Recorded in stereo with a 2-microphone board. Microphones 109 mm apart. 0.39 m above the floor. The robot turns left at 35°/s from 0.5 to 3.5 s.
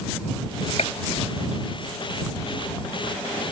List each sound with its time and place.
0.8 s a gunshot: 70° left (ahead or behind)